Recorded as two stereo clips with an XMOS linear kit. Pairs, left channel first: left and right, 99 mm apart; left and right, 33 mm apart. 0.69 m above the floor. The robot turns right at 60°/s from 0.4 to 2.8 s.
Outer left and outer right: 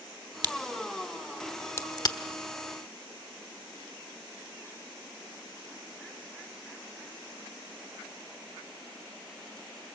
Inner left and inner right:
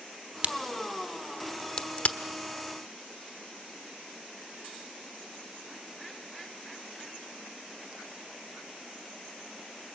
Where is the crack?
50° right (ahead or behind), 1.1 m; by 2.2 s 50° left (ahead or behind), 1.1 m.